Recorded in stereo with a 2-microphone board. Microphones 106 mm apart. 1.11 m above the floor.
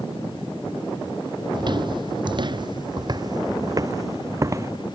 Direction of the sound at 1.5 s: 45° right (ahead or behind).